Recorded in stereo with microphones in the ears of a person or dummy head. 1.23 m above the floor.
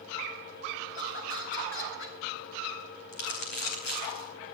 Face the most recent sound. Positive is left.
turn(degrees=70)  # may be behind; listen again after turning